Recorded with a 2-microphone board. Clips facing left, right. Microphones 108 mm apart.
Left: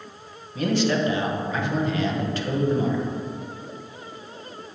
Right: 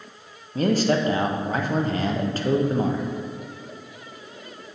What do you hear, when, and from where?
0.6 s a man speaking: 40° right (ahead or behind), 0.9 m